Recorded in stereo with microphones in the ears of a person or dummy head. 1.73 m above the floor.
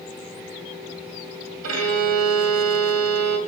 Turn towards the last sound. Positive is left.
turn(degrees=-85)